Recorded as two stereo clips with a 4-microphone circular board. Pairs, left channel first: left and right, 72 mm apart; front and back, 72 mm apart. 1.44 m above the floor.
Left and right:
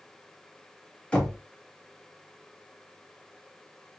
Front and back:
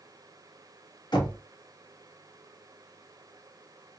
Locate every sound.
1.1 s knocking: 15° left, 1.8 m